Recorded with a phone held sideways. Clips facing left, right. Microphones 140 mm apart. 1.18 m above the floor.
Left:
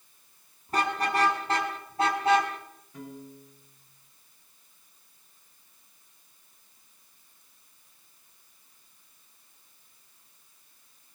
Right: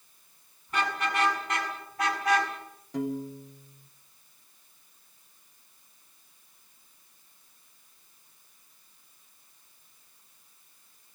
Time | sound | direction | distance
0.7 | a car horn | 35° left (ahead or behind) | 6.5 m
2.9 | a piano | 75° right (ahead or behind) | 1.7 m